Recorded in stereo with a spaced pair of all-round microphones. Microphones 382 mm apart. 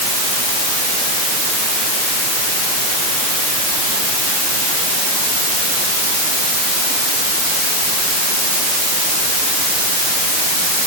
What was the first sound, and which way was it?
Only background noise.